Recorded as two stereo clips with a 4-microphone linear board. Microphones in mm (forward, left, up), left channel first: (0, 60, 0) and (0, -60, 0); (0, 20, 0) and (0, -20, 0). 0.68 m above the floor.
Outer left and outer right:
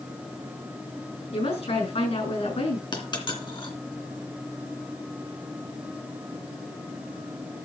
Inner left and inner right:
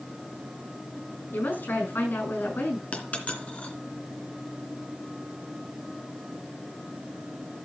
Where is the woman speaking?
65° left (ahead or behind), 7 m.